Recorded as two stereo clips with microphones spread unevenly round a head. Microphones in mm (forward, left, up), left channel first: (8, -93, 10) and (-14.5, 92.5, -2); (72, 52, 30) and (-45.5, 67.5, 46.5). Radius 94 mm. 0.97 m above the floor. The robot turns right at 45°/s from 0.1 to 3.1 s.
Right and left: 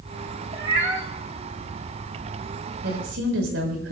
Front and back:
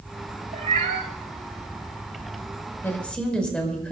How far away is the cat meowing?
About 3 m.